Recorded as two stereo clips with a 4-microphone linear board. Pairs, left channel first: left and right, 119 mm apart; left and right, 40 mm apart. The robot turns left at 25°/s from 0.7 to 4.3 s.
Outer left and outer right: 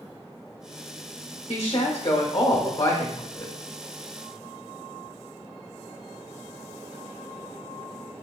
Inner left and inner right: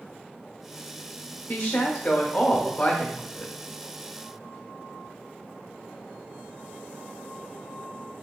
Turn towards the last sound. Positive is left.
turn(degrees=25)